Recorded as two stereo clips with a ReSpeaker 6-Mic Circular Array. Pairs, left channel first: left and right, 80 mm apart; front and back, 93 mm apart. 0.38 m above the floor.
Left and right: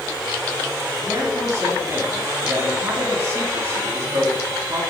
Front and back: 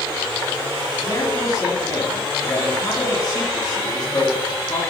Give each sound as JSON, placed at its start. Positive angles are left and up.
{"t": 1.0, "sound": "a man speaking", "azimuth_deg": -40, "distance_m": 3.0}